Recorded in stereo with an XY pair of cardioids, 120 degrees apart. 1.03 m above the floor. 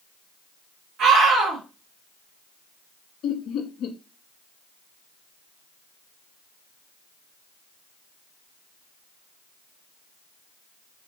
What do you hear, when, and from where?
1.0 s a scream: 65° right, 2.5 m
3.2 s laughter: 65° left, 0.8 m